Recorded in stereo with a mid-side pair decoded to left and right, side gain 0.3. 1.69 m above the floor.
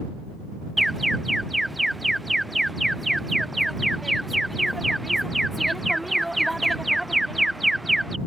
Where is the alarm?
5° right.